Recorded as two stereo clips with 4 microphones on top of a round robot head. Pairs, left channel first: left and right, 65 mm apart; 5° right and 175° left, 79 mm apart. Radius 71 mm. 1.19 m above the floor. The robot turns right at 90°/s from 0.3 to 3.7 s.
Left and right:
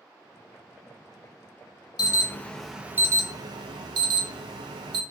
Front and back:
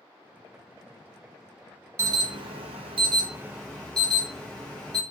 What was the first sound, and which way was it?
An alarm, 120° left.